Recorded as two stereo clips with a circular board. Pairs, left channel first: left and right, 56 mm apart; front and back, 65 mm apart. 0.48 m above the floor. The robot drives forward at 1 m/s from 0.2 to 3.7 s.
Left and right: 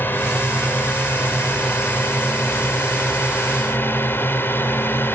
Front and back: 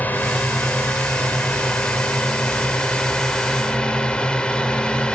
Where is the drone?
55° left; by 5.2 s 70° left.